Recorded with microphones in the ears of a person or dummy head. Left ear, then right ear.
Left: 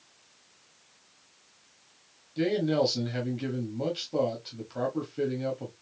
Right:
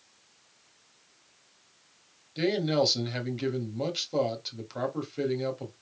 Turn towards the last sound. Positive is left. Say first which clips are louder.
# even
turn(degrees=-30)  # may be behind; listen again after turning